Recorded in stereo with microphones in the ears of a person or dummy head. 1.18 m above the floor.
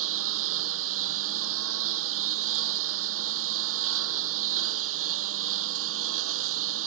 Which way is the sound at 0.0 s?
75° right (ahead or behind).